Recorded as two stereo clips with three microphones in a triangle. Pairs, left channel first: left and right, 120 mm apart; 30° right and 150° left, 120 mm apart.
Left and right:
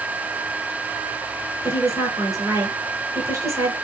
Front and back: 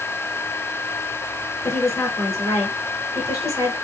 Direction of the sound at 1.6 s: 55° right.